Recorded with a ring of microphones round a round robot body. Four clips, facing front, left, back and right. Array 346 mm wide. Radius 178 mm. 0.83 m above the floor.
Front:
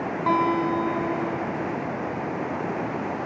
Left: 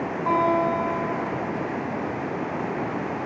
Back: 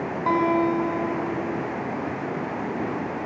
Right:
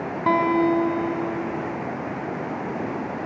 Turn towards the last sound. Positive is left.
turn(degrees=-85)